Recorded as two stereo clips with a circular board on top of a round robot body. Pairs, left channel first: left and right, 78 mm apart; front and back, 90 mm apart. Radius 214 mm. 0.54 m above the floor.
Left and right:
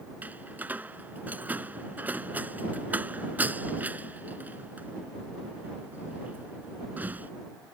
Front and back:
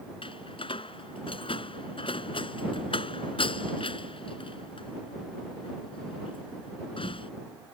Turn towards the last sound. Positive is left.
turn(degrees=-20)